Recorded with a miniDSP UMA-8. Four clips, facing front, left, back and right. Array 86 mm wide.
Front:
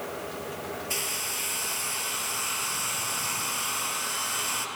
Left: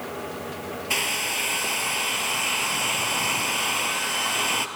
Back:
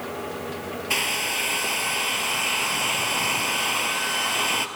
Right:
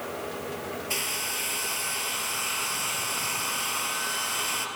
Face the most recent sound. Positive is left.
turn(degrees=145)